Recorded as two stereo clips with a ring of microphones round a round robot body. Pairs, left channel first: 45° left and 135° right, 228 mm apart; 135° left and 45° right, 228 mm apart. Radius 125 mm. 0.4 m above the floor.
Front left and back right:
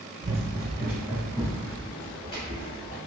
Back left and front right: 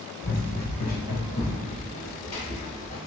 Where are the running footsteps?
165° left, 1.0 m; by 3.0 s 110° left, 3 m.